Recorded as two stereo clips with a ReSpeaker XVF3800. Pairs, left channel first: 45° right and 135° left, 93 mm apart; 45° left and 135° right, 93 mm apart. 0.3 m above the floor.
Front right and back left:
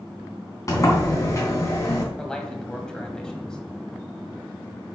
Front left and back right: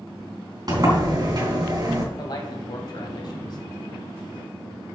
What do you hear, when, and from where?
0.7 s a sliding door: 95° right, 3 m
2.2 s a man speaking: 35° left, 1.7 m